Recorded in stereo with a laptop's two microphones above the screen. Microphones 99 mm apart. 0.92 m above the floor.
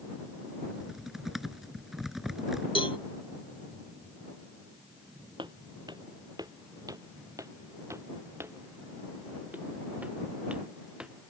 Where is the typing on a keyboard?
Centre (ahead or behind).